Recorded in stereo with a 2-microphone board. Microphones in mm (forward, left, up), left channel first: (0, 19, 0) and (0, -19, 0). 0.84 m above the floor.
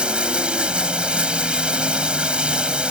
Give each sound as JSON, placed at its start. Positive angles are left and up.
{"t": 0.0, "sound": "running water", "side_deg": -25}